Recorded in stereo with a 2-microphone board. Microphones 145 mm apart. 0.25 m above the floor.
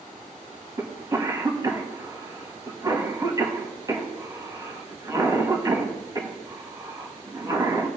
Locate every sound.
0.8 s a cough: 25° right (ahead or behind), 1.7 m